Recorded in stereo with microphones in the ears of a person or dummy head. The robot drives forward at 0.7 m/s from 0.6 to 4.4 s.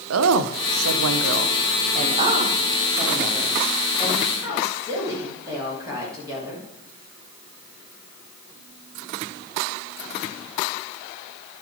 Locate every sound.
0.1 s a woman speaking: 75° right (ahead or behind), 0.7 m; by 6.7 s 15° right (ahead or behind), 2.5 m